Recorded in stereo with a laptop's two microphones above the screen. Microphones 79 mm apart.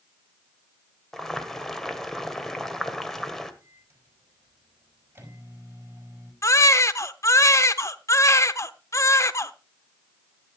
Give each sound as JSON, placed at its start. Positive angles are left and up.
{"t": 1.1, "sound": "boiling", "side_deg": 5, "distance_m": 1.7}
{"t": 3.6, "sound": "a microwave", "side_deg": -25, "distance_m": 5.5}
{"t": 6.4, "sound": "a baby crying", "side_deg": 40, "distance_m": 0.8}